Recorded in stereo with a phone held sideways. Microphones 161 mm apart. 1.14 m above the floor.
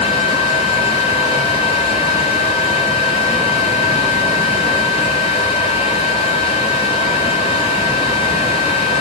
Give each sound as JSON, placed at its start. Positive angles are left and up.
{"t": 0.0, "sound": "a fan", "side_deg": 40, "distance_m": 2.0}